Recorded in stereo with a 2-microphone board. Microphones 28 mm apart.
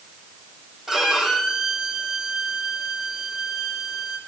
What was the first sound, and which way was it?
A violin, 10° right (ahead or behind).